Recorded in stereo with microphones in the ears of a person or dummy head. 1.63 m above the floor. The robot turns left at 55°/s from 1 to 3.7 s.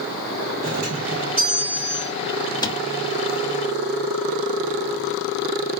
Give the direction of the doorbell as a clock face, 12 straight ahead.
5 o'clock.